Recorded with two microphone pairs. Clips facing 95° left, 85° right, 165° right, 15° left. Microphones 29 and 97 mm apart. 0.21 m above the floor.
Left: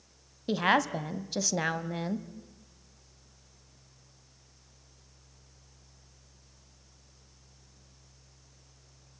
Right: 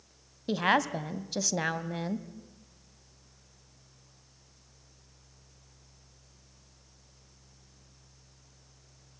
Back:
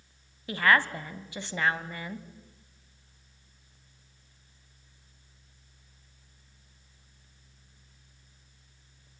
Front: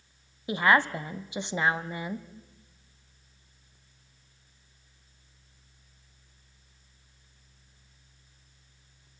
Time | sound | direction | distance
0.5 | a woman speaking | 5° left | 1.1 m